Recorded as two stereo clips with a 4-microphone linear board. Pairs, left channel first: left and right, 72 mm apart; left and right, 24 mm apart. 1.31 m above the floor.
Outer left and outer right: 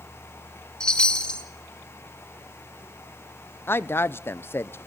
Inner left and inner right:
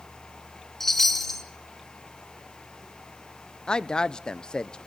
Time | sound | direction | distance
0.8 | a chime | 15° left (ahead or behind) | 1.6 m
3.7 | a woman speaking | 35° left (ahead or behind) | 0.5 m